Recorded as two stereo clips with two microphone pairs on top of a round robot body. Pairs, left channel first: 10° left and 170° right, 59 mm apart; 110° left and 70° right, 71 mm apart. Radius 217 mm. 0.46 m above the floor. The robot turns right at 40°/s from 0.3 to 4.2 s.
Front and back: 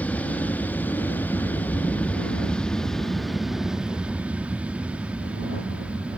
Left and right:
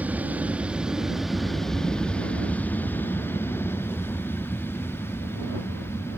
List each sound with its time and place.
0.0 s an aircraft: 15° right; by 6.2 s 125° left